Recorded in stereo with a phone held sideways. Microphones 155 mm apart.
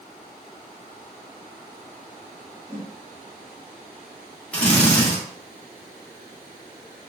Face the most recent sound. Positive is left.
turn(degrees=5)  # may be behind; listen again after turning